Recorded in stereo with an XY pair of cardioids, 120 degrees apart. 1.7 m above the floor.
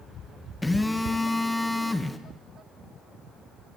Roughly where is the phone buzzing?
Ahead.